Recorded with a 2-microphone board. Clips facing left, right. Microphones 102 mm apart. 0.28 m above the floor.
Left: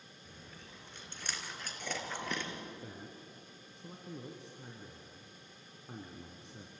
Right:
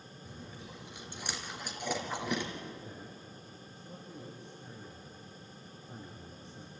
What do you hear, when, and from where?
0.2 s chewing: 10° right (ahead or behind), 2.5 m
2.8 s a man speaking: 70° left (ahead or behind), 2.5 m